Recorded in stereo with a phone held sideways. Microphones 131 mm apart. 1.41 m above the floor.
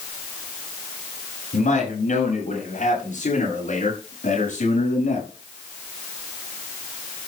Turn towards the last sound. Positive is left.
turn(degrees=65)  # may be behind; listen again after turning